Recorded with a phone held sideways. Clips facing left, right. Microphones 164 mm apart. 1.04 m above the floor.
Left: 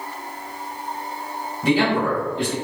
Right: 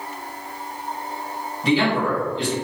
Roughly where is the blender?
No blender in this recording.